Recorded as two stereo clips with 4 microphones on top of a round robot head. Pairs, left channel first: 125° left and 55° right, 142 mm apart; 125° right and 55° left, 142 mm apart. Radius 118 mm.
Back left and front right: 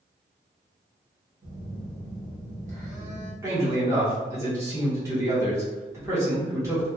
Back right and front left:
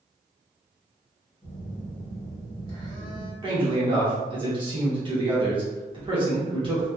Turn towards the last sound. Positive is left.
turn(degrees=10)